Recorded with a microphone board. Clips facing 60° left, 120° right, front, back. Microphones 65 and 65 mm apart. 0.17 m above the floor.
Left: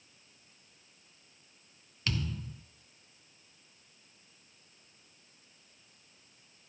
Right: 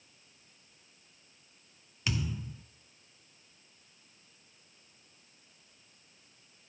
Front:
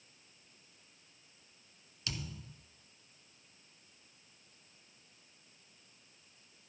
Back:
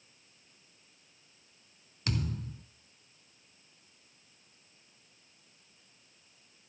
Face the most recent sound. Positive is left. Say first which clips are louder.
# right 1 dB, back 9 dB
turn(degrees=165)